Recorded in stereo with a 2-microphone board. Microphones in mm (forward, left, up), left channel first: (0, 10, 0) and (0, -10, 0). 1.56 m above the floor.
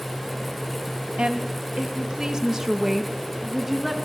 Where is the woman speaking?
65° right (ahead or behind), 1.5 m; by 4.0 s 5° right (ahead or behind), 2.5 m.